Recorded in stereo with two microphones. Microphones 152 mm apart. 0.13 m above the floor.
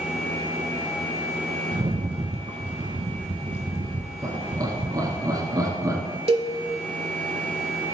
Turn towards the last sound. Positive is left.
turn(degrees=-40)  # may be behind; listen again after turning